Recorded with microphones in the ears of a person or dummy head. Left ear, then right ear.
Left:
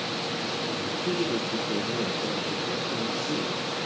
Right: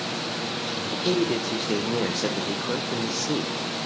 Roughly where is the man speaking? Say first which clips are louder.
Right 5 dB; right.